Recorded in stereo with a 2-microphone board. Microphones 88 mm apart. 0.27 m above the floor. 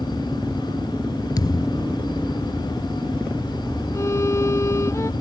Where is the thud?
50° left (ahead or behind).